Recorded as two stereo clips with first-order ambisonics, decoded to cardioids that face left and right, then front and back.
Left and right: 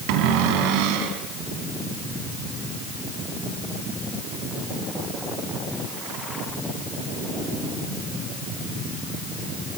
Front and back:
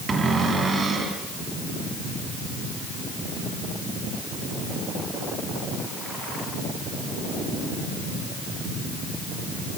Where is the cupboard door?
105° right, 3 m.